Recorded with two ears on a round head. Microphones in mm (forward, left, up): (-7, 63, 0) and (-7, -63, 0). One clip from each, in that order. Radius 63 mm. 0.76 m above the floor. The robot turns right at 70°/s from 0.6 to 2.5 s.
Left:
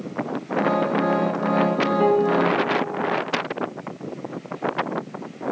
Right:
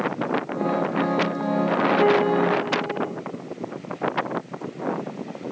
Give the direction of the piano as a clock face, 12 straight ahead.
5 o'clock.